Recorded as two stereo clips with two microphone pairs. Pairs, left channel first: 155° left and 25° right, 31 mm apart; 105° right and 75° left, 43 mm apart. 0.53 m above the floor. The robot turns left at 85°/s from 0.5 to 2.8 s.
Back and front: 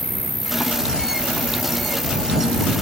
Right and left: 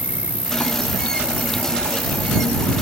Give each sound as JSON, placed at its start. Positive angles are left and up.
{"t": 0.0, "sound": "an insect", "azimuth_deg": 70}